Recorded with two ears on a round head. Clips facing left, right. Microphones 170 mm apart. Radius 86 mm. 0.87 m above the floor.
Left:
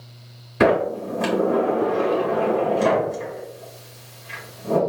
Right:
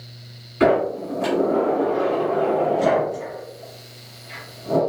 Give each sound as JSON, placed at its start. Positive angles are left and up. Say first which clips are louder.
{"t": 0.6, "sound": "a sliding door", "louder": "even", "side_deg": 70, "distance_m": 1.7}